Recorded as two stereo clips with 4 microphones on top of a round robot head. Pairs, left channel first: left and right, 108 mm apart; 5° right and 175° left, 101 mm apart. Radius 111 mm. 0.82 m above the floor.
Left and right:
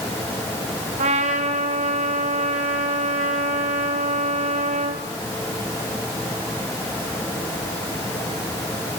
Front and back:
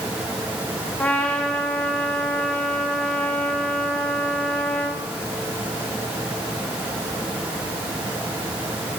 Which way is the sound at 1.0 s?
85° right.